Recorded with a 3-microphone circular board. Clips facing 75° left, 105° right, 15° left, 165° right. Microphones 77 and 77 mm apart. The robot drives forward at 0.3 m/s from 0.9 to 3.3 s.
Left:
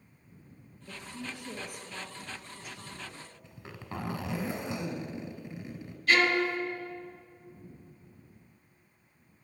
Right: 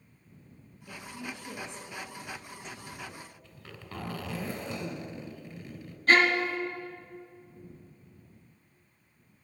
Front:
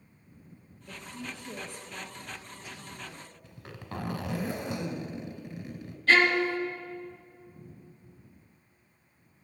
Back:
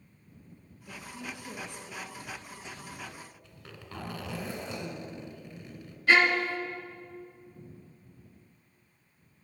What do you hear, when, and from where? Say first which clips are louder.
0.9 s a woman speaking: right 1 dB, even; 125° left, 1.4 m; by 3.3 s 160° left, 1.7 m
3.4 s a zipper: left 3 dB, front 4 dB; 50° left, 0.9 m
6.1 s a violin: right 2 dB, front 1 dB; 95° right, 1.1 m